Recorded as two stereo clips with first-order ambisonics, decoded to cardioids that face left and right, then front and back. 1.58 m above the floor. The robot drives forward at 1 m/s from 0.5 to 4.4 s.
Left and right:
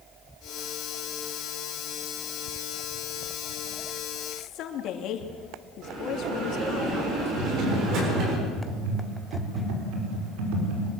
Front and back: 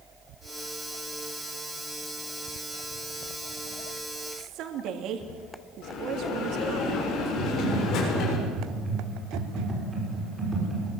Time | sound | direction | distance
4.3 | a woman speaking | 135° left | 2.5 m
5.8 | a bell | 45° right | 6.5 m
7.4 | typing on a keyboard | 100° right | 5.5 m